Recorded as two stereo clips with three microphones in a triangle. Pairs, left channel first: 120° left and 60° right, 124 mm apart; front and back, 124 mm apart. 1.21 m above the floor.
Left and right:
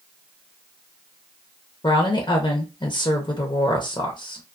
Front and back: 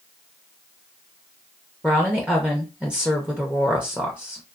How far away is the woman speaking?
About 0.6 m.